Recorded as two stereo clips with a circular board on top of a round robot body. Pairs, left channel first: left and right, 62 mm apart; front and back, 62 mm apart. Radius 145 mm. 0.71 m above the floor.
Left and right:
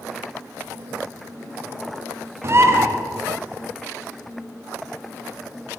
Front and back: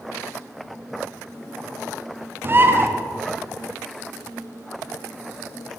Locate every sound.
2.4 s a bird: 130° right, 1.3 m